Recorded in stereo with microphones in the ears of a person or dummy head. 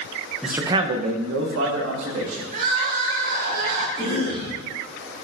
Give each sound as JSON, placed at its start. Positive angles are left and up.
{"t": 0.4, "sound": "a man speaking", "side_deg": 0, "distance_m": 0.7}
{"t": 2.5, "sound": "crying", "side_deg": -45, "distance_m": 1.2}
{"t": 4.0, "sound": "a cough", "side_deg": -25, "distance_m": 2.5}